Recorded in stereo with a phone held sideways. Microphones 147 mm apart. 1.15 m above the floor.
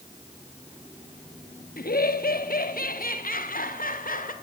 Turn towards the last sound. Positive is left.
turn(degrees=70)  # may be behind; listen again after turning